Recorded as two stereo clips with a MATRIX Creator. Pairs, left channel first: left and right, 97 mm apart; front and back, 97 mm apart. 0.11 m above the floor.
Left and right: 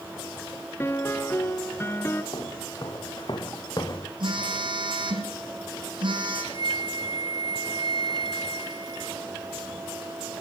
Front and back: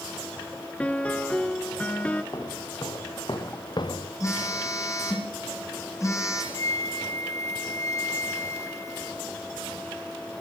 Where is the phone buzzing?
55° right, 4.5 m.